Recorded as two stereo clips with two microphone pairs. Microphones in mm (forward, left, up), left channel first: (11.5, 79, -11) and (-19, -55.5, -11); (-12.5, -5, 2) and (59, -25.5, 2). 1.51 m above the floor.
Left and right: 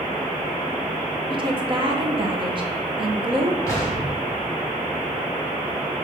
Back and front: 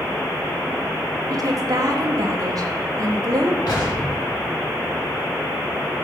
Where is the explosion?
140° left, 4 m.